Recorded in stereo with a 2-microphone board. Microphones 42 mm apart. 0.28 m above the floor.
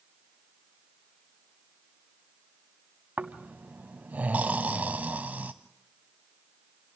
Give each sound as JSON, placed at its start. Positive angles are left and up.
{"t": 3.2, "sound": "snoring", "side_deg": -45, "distance_m": 1.0}